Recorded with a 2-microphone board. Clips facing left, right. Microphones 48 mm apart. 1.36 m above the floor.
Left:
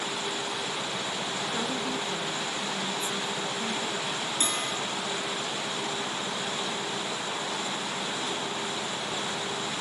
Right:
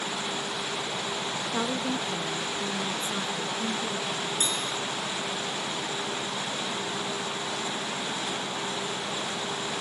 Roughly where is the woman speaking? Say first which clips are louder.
Right 4 dB; right.